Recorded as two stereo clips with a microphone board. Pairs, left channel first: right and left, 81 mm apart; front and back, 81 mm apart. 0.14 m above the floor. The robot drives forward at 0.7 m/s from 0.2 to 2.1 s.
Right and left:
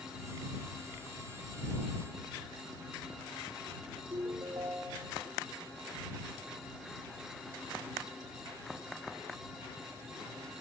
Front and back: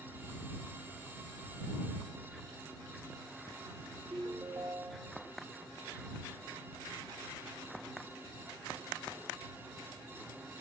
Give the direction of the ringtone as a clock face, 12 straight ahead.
8 o'clock.